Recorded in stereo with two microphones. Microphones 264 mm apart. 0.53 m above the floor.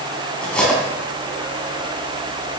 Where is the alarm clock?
No alarm clock in this recording.